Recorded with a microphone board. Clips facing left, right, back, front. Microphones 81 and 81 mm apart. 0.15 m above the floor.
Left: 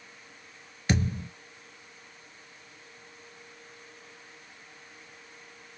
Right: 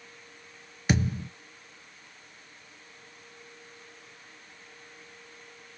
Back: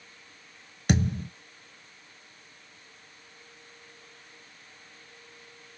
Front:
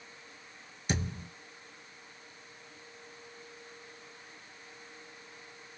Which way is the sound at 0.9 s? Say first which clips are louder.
Right 1 dB, back 9 dB; 165° right.